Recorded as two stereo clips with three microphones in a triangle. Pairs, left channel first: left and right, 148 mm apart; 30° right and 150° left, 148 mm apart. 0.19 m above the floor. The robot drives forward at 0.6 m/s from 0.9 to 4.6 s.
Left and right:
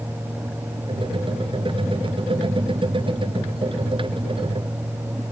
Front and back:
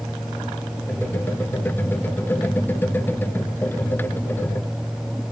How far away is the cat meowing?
No cat meowing in this recording.